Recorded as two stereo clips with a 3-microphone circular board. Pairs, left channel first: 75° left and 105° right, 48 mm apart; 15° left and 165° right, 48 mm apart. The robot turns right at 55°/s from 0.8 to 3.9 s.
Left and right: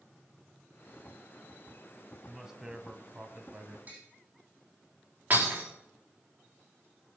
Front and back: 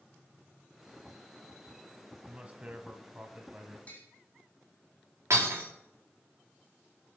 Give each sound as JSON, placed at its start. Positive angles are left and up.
{"t": 2.2, "sound": "a man speaking", "azimuth_deg": 175, "distance_m": 1.0}
{"t": 3.9, "sound": "tapping", "azimuth_deg": -50, "distance_m": 3.5}
{"t": 5.3, "sound": "breaking glass", "azimuth_deg": -155, "distance_m": 4.5}